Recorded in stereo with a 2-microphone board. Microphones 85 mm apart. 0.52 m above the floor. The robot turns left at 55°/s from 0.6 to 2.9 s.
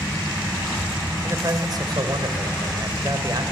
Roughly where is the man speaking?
Ahead right.